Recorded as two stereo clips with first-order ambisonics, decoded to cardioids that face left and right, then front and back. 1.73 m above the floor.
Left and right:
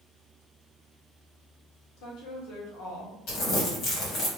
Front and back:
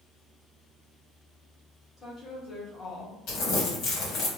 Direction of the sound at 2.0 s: 70° left.